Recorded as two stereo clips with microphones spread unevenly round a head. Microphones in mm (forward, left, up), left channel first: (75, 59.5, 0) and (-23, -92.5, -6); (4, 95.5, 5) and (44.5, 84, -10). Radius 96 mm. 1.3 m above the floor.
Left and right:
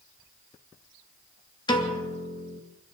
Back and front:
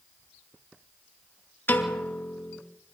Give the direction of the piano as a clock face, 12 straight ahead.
8 o'clock.